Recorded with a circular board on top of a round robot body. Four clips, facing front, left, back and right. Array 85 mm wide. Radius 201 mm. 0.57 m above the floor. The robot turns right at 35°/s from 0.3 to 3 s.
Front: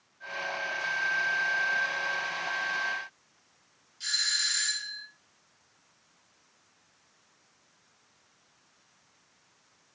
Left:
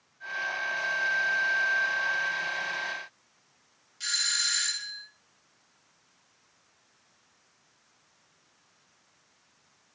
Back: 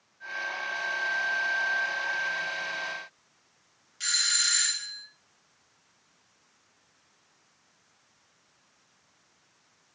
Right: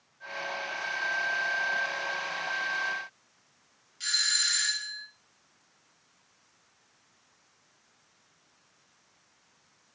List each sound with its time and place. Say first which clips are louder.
4.0 s a doorbell: right 1 dB, back 2 dB; 175° right, 4.5 m